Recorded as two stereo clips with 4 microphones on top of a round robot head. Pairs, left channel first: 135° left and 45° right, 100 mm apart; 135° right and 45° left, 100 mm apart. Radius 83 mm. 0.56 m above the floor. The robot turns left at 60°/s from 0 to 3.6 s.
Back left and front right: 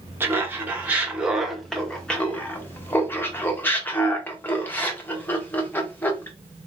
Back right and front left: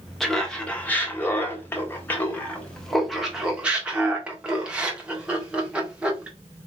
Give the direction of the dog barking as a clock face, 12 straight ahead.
No dog barking in this recording.